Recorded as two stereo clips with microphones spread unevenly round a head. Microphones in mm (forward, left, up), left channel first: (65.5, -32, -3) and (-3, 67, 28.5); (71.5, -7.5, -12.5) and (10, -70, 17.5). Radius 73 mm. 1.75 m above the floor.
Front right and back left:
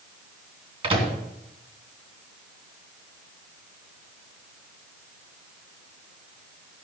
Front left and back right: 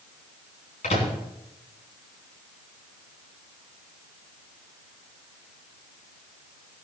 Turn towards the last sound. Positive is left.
turn(degrees=85)